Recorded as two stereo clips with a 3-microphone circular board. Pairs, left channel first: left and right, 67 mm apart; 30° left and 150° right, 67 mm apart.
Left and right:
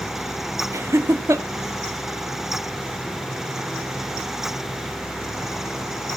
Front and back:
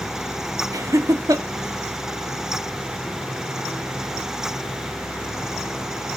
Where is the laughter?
125° right, 0.5 m.